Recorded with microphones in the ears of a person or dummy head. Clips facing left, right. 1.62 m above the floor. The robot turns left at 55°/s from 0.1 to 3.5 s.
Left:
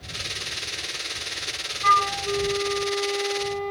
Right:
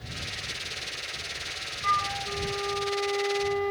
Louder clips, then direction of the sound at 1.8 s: Left 7 dB; 80° left.